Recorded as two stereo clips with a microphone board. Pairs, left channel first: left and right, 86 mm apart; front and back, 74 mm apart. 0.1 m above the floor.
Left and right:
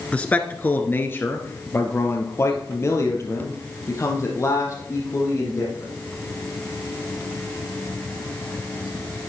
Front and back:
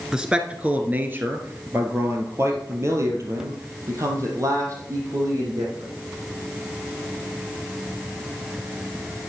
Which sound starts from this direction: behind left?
A man speaking, at 0.1 s.